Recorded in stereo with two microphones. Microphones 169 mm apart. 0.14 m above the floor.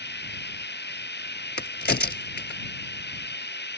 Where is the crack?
65° left (ahead or behind).